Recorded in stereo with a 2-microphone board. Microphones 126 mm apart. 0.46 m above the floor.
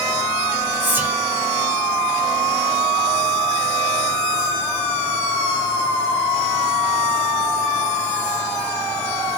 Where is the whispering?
15° right (ahead or behind), 1.3 m.